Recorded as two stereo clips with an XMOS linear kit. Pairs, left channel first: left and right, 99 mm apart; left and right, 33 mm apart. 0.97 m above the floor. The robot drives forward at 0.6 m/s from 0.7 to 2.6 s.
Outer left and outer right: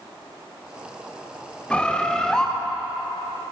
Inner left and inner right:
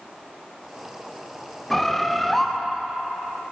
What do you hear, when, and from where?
1.7 s a bird: 10° left (ahead or behind), 0.6 m; by 2.5 s 5° left (ahead or behind), 1.0 m